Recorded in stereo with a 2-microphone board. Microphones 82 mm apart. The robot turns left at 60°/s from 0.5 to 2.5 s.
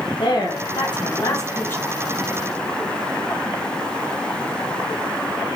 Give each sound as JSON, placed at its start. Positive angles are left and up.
{"t": 0.2, "sound": "a woman speaking", "side_deg": 65, "distance_m": 0.9}